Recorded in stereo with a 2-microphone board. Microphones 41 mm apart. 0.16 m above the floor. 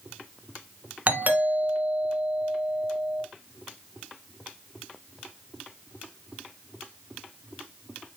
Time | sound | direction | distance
1.1 | a doorbell | 45° right (ahead or behind) | 2.0 m